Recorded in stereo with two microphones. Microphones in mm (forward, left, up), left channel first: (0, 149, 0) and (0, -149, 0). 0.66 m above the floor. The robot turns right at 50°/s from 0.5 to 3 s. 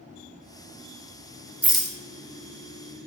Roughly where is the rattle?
Centre.